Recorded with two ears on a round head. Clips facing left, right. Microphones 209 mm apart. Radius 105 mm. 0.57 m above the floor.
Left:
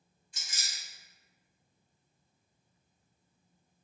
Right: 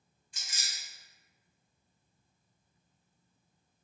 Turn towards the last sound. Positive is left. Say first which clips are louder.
# even
turn(degrees=-75)  # may be behind; listen again after turning